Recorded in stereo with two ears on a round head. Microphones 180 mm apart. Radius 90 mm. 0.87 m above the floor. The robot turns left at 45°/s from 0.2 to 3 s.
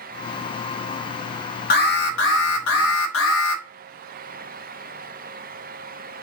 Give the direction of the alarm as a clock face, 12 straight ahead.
8 o'clock.